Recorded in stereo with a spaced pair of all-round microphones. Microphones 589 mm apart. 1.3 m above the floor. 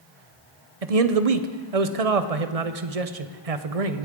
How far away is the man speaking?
About 0.8 m.